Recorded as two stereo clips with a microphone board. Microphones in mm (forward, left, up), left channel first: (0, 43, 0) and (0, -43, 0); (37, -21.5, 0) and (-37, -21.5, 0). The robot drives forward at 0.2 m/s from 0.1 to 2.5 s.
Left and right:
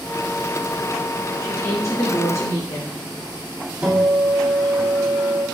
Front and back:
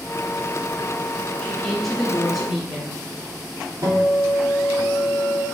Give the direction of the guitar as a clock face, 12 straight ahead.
5 o'clock.